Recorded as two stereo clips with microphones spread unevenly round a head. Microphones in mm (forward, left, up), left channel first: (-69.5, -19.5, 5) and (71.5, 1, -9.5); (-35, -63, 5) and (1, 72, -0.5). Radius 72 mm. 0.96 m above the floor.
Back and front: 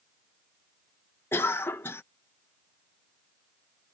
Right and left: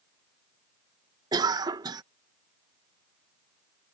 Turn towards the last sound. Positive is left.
turn(degrees=115)